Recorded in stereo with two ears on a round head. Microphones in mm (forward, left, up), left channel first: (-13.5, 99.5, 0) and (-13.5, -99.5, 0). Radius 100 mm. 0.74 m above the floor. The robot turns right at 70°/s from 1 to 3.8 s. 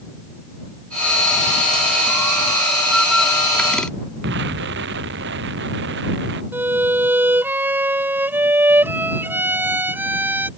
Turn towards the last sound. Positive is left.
turn(degrees=-10)  # may be behind; listen again after turning